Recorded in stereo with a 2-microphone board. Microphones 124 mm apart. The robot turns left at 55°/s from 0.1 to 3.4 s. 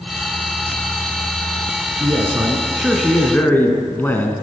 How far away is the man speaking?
About 1.3 m.